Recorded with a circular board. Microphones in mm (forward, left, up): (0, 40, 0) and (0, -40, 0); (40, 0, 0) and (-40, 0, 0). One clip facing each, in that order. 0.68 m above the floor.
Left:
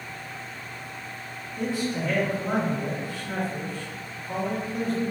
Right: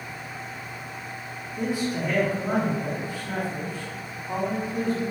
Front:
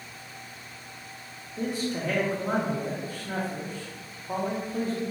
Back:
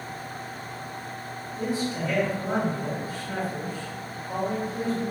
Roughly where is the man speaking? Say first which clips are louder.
Right 1 dB, back 1 dB; ahead.